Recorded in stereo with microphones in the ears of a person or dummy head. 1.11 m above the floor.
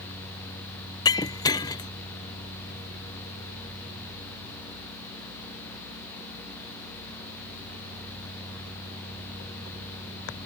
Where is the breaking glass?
20° left (ahead or behind).